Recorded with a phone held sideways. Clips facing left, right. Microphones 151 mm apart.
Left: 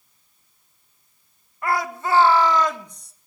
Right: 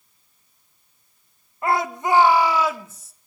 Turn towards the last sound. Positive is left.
turn(degrees=0)  # may be behind; listen again after turning